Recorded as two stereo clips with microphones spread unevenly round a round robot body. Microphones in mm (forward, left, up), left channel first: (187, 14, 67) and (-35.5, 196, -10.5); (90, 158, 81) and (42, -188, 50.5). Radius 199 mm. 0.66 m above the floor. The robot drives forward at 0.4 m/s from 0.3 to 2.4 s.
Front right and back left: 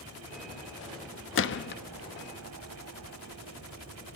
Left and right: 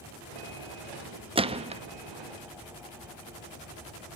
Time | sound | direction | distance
1.4 | a gunshot | 50° right | 0.8 m